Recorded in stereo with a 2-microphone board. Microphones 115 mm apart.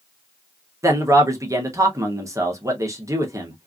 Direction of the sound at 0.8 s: 30° right (ahead or behind).